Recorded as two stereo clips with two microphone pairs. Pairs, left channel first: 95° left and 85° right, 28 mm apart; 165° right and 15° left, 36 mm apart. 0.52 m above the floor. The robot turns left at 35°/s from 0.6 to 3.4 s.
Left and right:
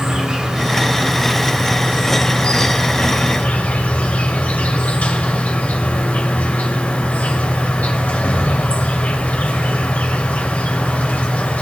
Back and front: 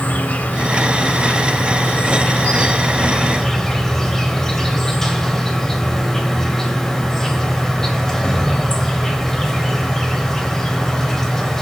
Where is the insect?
145° right, 2.5 m; by 11.6 s 115° left, 2.5 m.